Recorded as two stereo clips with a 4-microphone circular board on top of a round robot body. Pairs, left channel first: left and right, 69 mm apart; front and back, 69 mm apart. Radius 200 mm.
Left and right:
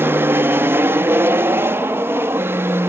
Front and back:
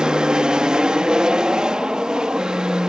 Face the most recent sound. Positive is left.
turn(degrees=-105)